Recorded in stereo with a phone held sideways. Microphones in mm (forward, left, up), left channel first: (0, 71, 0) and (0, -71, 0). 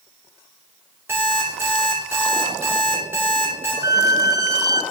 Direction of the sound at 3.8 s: 25° right (ahead or behind).